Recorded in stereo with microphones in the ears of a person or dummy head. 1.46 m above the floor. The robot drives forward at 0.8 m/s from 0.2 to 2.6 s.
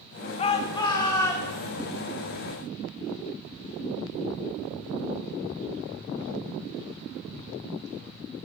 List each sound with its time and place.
0.4 s a shout: 35° left (ahead or behind), 0.7 m; by 1.7 s 15° left (ahead or behind), 1.6 m